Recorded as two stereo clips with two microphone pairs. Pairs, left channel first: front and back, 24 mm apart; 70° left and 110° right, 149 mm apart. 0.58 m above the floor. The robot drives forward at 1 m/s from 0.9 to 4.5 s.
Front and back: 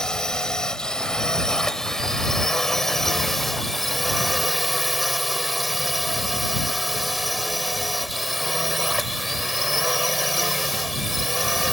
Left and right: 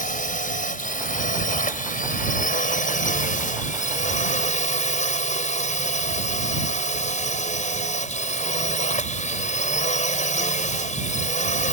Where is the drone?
60° left; by 11.7 s 95° left.